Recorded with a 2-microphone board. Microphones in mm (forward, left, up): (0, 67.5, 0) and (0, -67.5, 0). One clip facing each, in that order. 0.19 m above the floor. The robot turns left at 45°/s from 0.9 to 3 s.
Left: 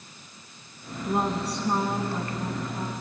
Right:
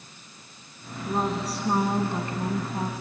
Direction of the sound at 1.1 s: 15° left.